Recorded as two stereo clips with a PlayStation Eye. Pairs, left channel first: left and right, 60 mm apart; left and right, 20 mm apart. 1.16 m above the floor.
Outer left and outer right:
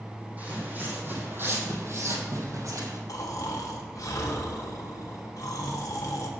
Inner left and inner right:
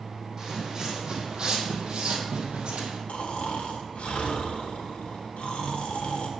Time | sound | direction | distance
0.4 | footsteps | 25° right (ahead or behind) | 3 m
3.1 | snoring | 70° left (ahead or behind) | 1.6 m